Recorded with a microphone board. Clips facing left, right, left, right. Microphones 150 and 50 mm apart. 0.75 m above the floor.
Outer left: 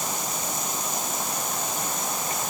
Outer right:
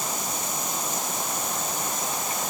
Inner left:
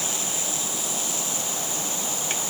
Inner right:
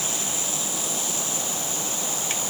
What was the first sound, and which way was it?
Only background noise.